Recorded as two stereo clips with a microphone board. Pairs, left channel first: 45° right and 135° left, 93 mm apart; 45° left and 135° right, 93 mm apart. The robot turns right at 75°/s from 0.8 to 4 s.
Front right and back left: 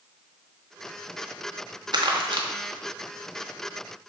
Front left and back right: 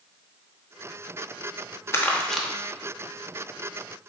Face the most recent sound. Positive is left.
turn(degrees=-100)